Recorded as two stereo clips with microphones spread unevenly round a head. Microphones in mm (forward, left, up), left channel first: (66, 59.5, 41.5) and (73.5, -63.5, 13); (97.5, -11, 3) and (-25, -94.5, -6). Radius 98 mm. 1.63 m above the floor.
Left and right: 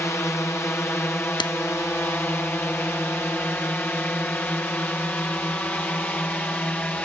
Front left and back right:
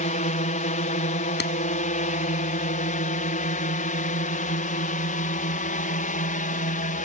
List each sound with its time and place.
0.0 s a drone: 20° left; by 7.1 s 15° left
1.4 s a clap: 45° left